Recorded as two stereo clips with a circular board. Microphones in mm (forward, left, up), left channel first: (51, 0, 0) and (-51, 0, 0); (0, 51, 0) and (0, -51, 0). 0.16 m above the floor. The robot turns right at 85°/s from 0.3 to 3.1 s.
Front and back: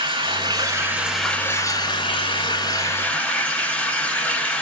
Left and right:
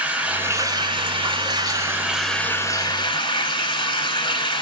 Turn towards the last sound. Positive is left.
turn(degrees=75)